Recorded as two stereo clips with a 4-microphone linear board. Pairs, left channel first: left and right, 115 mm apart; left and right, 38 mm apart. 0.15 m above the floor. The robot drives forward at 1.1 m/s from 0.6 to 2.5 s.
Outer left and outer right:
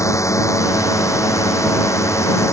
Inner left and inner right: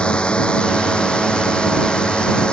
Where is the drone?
25° left (ahead or behind).